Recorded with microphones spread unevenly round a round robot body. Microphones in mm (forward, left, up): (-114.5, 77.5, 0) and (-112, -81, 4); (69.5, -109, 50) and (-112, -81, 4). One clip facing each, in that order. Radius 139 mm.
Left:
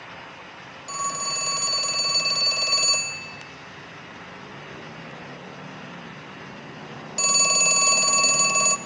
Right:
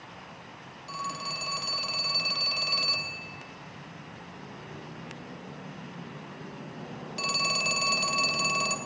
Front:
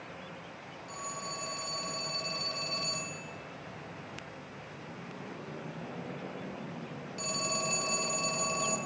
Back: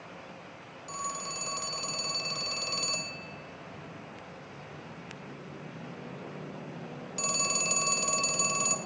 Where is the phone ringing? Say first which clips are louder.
Left 5 dB, back 2 dB; 135° left, 1.2 m.